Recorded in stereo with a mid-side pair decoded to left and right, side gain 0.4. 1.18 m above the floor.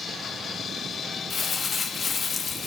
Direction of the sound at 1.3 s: 40° left.